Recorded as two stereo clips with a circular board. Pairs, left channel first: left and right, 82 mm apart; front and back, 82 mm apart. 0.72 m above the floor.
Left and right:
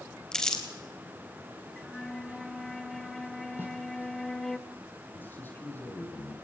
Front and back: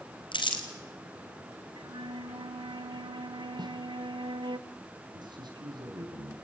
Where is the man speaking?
155° left, 4.5 m.